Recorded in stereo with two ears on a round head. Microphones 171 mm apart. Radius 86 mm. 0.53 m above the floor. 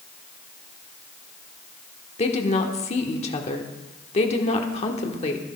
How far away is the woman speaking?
About 1.3 m.